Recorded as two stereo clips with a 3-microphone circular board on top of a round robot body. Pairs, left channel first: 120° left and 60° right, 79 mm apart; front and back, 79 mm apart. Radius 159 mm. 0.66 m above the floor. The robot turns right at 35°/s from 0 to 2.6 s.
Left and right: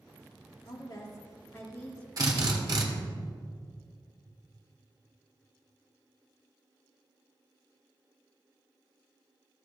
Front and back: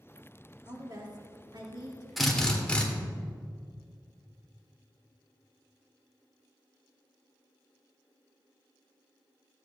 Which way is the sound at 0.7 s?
135° left.